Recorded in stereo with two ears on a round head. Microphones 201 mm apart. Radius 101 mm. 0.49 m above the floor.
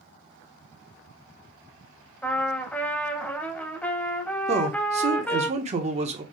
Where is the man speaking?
30° right (ahead or behind), 1.1 m.